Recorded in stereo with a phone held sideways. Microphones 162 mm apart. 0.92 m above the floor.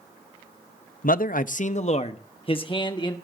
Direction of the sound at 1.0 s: 65° left (ahead or behind).